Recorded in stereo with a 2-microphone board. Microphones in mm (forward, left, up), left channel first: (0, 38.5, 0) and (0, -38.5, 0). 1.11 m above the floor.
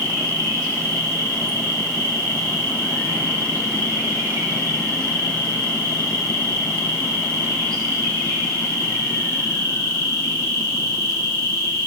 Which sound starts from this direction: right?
An insect, at 0.0 s.